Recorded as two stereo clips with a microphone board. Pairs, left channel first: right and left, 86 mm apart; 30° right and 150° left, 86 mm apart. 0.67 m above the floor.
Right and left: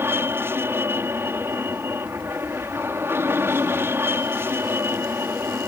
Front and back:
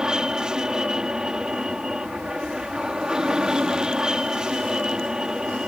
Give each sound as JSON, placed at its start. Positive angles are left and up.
{"t": 0.0, "sound": "an aircraft", "azimuth_deg": 80}